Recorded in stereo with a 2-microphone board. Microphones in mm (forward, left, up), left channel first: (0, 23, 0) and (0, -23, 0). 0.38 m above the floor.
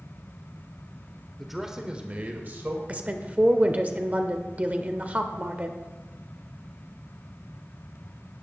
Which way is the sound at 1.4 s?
Centre (ahead or behind).